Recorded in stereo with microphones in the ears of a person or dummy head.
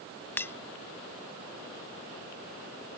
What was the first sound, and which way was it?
Breaking glass, 10° left (ahead or behind).